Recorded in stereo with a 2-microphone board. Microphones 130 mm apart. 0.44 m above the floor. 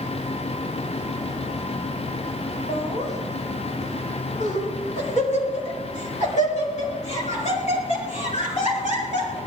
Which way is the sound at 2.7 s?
60° left (ahead or behind).